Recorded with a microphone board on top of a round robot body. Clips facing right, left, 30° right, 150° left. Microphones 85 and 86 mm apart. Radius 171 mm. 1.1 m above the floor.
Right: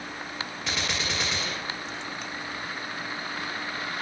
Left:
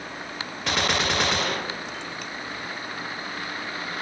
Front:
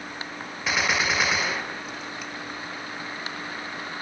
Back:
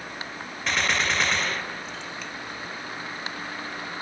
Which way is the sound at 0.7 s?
55° left.